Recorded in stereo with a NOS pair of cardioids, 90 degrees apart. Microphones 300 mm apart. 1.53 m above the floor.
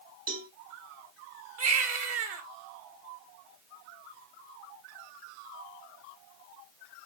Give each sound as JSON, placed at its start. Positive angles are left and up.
{"t": 0.3, "sound": "a cowbell", "azimuth_deg": -60, "distance_m": 4.0}
{"t": 1.6, "sound": "a baby crying", "azimuth_deg": -55, "distance_m": 3.0}